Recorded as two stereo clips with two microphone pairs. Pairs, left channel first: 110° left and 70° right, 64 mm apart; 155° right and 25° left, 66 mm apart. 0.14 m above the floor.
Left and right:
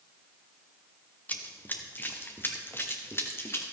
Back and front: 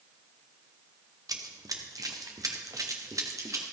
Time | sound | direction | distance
1.3 | running footsteps | 45° left | 2 m